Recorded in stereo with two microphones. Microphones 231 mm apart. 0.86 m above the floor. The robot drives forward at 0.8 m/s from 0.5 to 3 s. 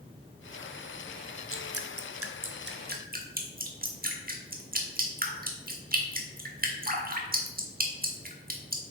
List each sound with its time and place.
1.5 s dripping: 65° right (ahead or behind), 0.8 m; by 8.9 s 40° right (ahead or behind), 1.1 m